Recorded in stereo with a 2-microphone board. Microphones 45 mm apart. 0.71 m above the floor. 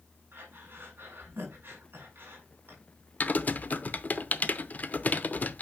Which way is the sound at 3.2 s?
40° left (ahead or behind).